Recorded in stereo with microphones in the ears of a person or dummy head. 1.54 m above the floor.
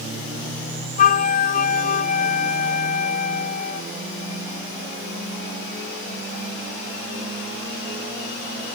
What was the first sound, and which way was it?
A flute, 45° left (ahead or behind).